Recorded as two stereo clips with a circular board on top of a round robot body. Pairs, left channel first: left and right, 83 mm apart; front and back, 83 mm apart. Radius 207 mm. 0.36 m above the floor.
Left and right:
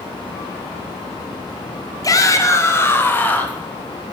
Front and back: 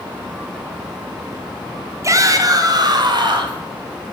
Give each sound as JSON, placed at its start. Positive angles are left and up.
{"t": 2.0, "sound": "a shout", "azimuth_deg": 130, "distance_m": 2.5}